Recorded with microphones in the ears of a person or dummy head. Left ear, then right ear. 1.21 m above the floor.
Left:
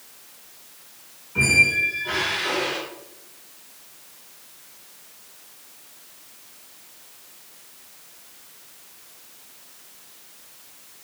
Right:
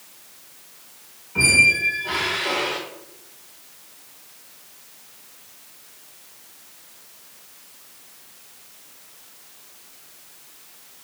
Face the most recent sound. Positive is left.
turn(degrees=-15)  # may be behind; listen again after turning